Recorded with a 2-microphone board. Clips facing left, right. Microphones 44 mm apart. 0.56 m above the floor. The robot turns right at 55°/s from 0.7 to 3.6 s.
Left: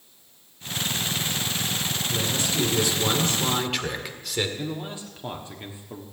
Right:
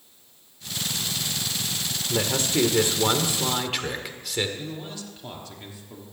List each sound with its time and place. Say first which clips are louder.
2.1 s a man speaking: right 5 dB; 85° right, 1.5 m; by 4.5 s straight ahead, 1.5 m
4.6 s a man speaking: left 3 dB; 25° left (ahead or behind), 1.4 m